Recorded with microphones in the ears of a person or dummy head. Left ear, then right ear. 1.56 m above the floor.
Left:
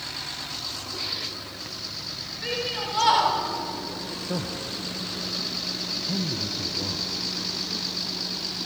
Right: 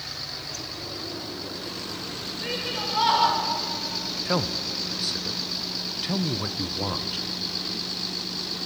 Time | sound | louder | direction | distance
2.4 | a shout | left 1 dB | 10° left (ahead or behind) | 3.5 m
4.2 | a man speaking | right 6 dB | 55° right (ahead or behind) | 0.8 m